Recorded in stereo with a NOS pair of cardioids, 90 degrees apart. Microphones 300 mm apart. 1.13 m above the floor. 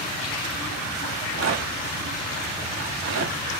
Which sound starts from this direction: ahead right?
A rattle, at 1.1 s.